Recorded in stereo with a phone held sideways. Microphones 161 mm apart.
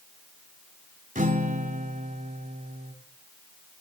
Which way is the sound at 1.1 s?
55° right (ahead or behind).